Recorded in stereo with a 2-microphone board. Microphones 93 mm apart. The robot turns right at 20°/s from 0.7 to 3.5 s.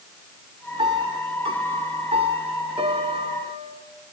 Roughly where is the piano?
Behind right.